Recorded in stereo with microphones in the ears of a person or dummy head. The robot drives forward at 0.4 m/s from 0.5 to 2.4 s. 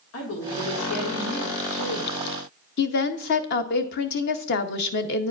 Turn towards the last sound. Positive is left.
turn(degrees=55)  # may be behind; listen again after turning